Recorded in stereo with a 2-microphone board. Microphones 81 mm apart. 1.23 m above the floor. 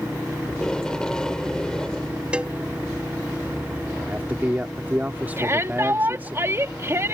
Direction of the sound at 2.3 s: 15° right (ahead or behind).